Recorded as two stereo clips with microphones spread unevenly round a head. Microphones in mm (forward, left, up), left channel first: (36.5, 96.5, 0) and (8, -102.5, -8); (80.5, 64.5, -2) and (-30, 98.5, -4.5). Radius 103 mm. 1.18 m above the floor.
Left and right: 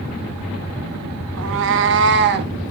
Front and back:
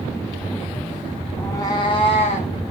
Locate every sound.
1.4 s a cat meowing: 95° right, 0.7 m; by 2.5 s 60° right, 1.1 m